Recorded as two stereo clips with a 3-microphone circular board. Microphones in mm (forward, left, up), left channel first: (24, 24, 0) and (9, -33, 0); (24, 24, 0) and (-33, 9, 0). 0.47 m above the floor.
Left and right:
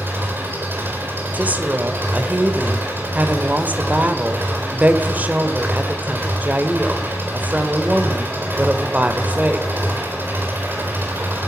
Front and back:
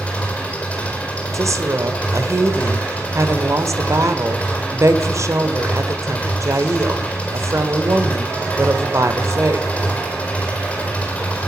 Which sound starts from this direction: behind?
A woman speaking, at 1.3 s.